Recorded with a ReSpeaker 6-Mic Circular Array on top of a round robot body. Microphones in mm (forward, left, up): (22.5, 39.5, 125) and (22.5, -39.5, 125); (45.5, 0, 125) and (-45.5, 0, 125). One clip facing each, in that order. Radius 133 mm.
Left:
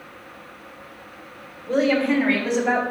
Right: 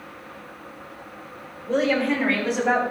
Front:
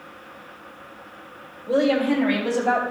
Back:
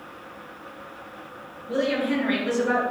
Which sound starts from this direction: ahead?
A woman speaking, at 1.7 s.